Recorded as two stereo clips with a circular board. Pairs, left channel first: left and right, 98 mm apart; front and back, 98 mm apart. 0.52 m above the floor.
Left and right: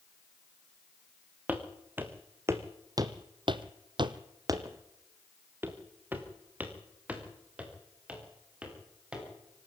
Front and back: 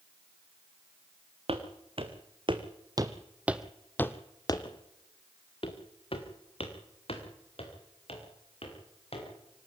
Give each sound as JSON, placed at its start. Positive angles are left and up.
{"t": 1.5, "sound": "footsteps", "azimuth_deg": -165, "distance_m": 2.5}